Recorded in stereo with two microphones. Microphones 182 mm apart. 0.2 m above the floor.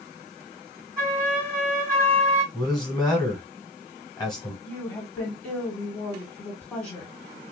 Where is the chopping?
I don't hear chopping.